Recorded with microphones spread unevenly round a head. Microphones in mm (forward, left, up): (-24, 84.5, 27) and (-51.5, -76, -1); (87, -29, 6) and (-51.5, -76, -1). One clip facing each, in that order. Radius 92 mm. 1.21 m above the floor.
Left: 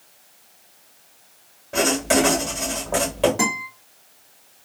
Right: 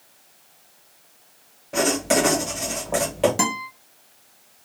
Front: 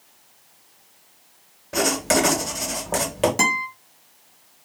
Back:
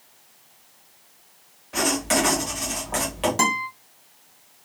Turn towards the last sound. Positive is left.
turn(degrees=-50)